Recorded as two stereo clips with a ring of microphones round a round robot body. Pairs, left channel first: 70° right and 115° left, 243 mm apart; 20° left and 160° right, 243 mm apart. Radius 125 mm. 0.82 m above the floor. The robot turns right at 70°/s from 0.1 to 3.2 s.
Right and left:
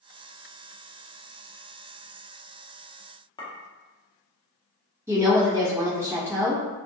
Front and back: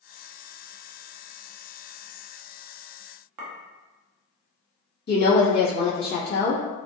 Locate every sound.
3.4 s a clink: 140° right, 0.7 m
5.1 s a woman speaking: 35° left, 1.1 m